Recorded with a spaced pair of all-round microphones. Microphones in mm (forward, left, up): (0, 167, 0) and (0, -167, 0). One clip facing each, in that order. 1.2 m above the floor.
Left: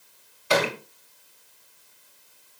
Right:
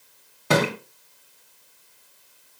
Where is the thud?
60° right (ahead or behind), 2 m.